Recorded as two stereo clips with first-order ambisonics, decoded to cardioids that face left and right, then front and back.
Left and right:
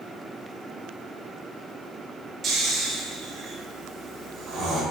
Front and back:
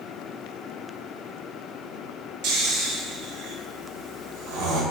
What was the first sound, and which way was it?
Snoring, 160° right.